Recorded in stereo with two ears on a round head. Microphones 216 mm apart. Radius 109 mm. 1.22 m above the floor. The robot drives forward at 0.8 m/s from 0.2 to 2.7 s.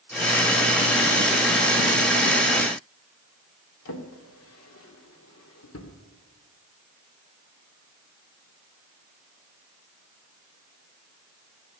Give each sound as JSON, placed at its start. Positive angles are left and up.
{"t": 3.9, "sound": "a drawer", "side_deg": 60, "distance_m": 2.0}